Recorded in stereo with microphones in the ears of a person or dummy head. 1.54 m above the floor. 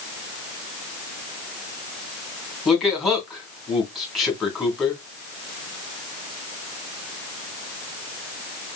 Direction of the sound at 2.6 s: Centre (ahead or behind).